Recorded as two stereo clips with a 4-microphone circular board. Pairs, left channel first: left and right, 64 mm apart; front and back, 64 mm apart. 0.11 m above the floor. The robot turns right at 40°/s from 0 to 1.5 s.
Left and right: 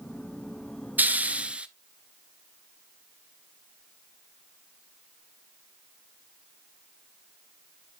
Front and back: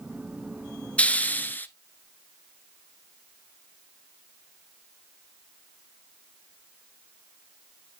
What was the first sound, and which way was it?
A hiss, 55° right.